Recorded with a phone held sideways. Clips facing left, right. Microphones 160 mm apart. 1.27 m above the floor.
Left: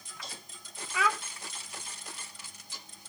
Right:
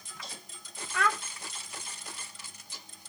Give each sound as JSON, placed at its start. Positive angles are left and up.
{"t": 0.9, "sound": "a child speaking", "side_deg": 5, "distance_m": 0.7}